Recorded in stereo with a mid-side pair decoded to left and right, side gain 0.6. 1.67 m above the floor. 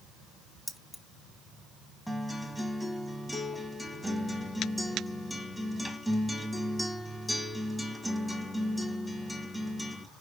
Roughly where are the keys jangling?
Ahead.